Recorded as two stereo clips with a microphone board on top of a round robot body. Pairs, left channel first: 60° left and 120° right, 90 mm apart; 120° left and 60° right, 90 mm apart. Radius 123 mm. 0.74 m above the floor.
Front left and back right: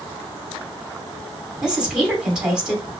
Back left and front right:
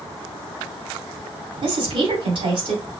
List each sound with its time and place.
1.6 s a woman speaking: 40° right, 2.5 m